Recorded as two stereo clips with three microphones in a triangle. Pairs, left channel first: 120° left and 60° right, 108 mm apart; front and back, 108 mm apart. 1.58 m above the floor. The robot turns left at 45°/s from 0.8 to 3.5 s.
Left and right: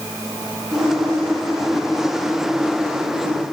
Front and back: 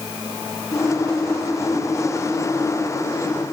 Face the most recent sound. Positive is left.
No sound to turn to.